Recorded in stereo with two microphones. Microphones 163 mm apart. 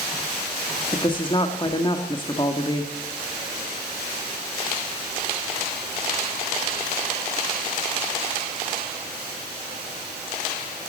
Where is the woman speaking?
30° left (ahead or behind), 1.1 m.